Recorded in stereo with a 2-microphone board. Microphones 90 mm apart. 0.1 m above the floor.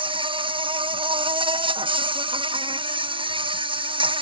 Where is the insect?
70° right (ahead or behind).